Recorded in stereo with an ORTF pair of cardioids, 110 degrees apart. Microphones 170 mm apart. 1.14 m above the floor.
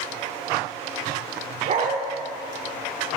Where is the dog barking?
45° right, 1.6 m.